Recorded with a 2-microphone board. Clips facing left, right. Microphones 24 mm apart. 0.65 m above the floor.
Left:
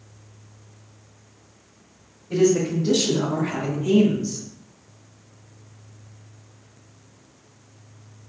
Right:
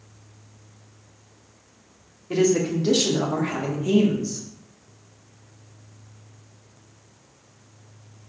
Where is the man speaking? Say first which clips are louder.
Left 1 dB; 55° right (ahead or behind), 1.6 m; by 4.4 s 20° left (ahead or behind), 1.2 m.